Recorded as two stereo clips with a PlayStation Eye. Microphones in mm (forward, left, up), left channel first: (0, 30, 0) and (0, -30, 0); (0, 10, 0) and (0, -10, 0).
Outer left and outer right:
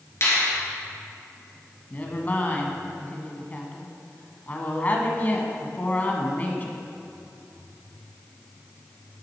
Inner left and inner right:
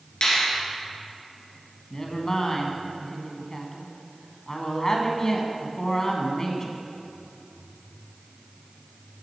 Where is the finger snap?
45° left (ahead or behind), 2.5 m.